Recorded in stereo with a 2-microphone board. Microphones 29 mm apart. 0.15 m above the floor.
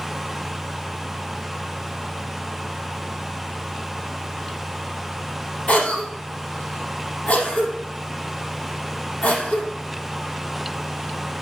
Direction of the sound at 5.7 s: 50° left (ahead or behind).